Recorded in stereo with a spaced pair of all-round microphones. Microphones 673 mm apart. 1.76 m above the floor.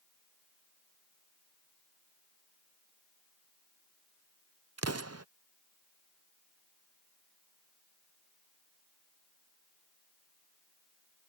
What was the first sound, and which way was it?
An explosion, 25° right (ahead or behind).